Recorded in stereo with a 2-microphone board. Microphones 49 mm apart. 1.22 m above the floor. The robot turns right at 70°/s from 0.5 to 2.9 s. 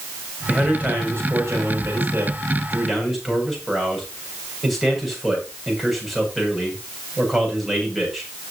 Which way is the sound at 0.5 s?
170° right.